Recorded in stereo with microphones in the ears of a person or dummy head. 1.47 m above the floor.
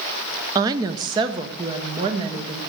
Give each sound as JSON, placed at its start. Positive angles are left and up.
{"t": 0.6, "sound": "a woman speaking", "side_deg": -15, "distance_m": 0.6}